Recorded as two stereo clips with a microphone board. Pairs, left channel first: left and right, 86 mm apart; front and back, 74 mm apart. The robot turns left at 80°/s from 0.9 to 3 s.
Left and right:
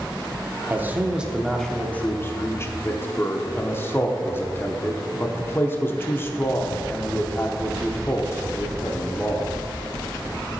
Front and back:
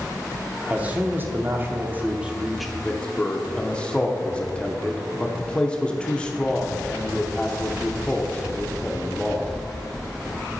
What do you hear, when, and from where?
0.7 s a man speaking: 130° right, 0.8 m; by 9.5 s 60° left, 0.8 m